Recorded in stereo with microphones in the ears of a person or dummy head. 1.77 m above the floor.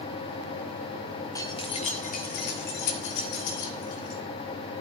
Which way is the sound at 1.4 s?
15° left (ahead or behind).